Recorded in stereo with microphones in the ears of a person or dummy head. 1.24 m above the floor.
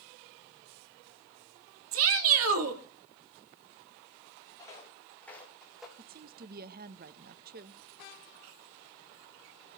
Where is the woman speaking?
45° right (ahead or behind), 0.7 m.